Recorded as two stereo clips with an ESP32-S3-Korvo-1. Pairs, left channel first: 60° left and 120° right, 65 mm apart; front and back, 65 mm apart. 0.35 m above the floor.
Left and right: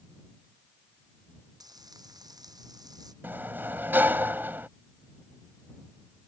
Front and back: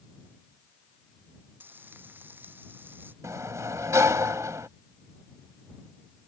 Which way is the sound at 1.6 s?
120° right.